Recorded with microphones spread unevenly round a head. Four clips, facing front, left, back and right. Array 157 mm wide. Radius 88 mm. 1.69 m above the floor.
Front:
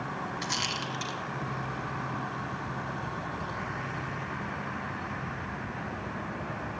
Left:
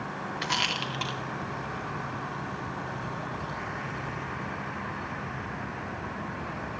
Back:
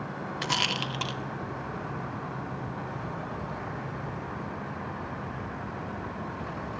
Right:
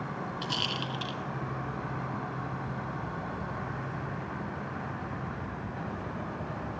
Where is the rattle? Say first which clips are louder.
Left 3 dB, back 3 dB; 165° right, 0.7 m.